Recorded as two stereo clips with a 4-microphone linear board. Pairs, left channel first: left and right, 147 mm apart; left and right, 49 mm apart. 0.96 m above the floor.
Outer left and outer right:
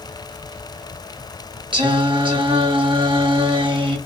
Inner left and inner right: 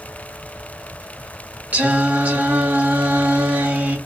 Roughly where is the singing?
Right.